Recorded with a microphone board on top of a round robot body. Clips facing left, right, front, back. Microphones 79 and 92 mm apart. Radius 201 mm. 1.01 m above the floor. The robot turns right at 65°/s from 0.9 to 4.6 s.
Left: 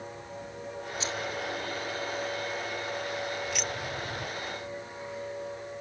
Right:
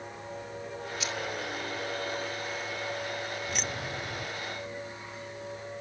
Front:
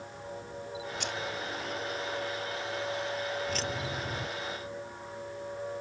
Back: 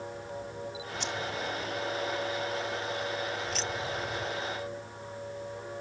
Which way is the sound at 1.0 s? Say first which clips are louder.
Left 1 dB, back 3 dB; 30° left.